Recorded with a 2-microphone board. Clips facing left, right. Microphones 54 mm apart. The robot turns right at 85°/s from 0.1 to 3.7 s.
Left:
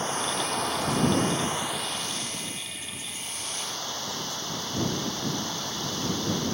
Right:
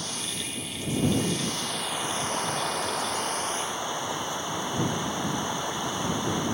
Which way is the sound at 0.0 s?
35° left.